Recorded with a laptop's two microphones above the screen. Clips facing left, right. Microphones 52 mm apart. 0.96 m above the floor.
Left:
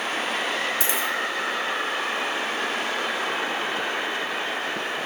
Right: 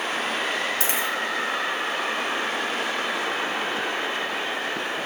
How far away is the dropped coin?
About 1.8 m.